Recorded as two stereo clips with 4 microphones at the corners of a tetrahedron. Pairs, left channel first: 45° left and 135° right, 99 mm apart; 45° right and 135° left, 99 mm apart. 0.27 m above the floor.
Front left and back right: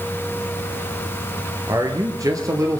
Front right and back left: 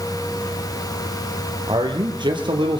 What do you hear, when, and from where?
1.7 s a man speaking: 175° left, 5 m; by 2.8 s 170° left, 5.5 m